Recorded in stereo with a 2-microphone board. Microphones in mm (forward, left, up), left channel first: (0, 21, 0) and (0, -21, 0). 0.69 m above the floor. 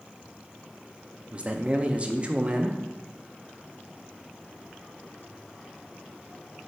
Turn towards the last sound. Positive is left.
turn(degrees=-25)  # may be behind; listen again after turning